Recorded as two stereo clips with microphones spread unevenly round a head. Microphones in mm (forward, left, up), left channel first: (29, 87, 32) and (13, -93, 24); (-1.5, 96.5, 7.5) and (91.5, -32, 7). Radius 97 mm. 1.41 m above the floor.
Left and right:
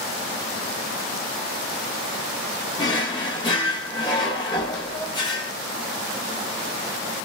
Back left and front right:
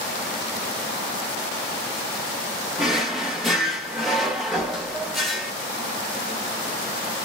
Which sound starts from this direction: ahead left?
A drawer, at 2.8 s.